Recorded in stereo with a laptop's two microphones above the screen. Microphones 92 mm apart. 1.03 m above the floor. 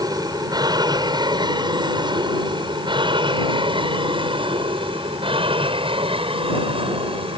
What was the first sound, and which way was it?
An aircraft, 45° right (ahead or behind).